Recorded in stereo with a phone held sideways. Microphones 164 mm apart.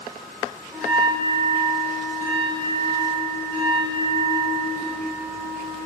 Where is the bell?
Centre (ahead or behind), 1.9 m.